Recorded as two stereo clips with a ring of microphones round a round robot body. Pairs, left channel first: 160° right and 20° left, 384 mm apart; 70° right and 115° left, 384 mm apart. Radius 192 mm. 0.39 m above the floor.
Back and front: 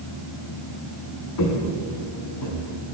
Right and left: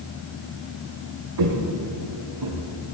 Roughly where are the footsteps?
Behind left.